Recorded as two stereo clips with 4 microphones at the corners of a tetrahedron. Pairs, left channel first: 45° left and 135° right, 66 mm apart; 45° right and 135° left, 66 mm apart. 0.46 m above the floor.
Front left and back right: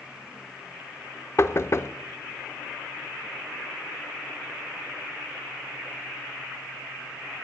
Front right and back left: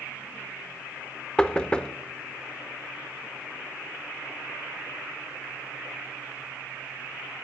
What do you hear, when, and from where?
1.4 s knocking: 25° left, 0.5 m